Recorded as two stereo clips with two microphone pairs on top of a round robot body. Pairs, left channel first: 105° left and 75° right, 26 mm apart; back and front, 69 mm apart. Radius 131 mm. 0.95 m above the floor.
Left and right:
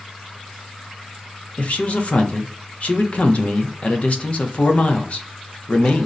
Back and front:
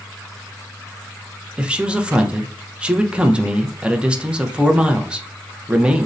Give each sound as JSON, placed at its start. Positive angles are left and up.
{"t": 1.6, "sound": "a man speaking", "azimuth_deg": 70, "distance_m": 0.7}